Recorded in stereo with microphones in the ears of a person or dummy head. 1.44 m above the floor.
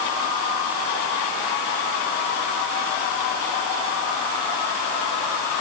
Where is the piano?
I don't hear a piano.